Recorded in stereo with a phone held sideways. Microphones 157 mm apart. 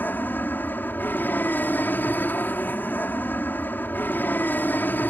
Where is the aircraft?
10° left (ahead or behind).